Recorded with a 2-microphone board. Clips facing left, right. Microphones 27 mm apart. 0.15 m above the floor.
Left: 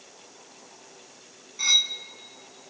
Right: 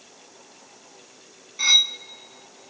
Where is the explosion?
No explosion in this recording.